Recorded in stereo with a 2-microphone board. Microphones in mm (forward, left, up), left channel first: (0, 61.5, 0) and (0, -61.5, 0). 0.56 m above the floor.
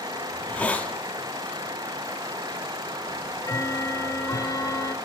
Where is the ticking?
25° left (ahead or behind), 0.5 m.